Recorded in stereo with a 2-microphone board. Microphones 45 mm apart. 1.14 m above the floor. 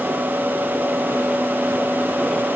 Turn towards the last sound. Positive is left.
No sound to turn to.